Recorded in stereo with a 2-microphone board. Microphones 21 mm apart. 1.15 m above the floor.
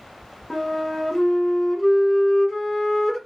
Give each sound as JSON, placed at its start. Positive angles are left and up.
{"t": 0.5, "sound": "a flute", "side_deg": 25, "distance_m": 0.9}